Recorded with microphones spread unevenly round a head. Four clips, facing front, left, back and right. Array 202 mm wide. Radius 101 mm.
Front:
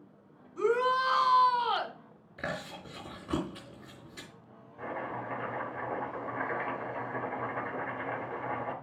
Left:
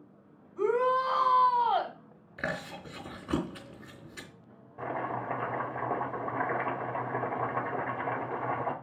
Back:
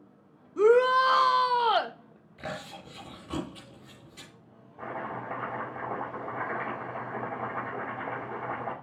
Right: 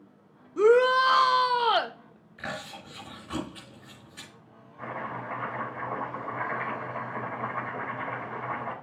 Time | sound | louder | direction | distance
0.6 | a shout | right 7 dB, back 7 dB | 135° right | 1.2 m
2.4 | chewing | left 2 dB, front 1 dB | 35° left | 3.5 m
4.8 | chopping | left 2 dB, back 1 dB | 115° left | 4 m